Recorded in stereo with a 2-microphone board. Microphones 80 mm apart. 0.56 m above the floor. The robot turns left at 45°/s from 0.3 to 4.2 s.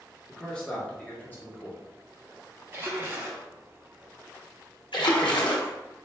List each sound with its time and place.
0.3 s a man speaking: 5° left (ahead or behind), 0.9 m; by 1.8 s 25° left (ahead or behind), 0.9 m
2.7 s a splash: 110° right, 0.8 m; by 3.5 s 145° right, 0.8 m
4.9 s a splash: 75° left (ahead or behind), 0.6 m